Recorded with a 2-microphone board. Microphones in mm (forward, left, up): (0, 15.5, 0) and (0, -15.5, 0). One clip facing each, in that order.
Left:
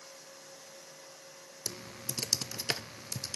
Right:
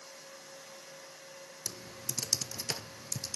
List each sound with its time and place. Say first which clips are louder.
1.7 s typing on a keyboard: left 2 dB; 35° left (ahead or behind), 0.6 m